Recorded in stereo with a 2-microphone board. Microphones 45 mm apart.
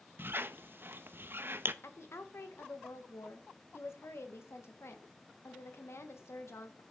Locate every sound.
0.2 s a squeak: 50° right (ahead or behind), 0.6 m
1.8 s a woman speaking: 70° left (ahead or behind), 1.5 m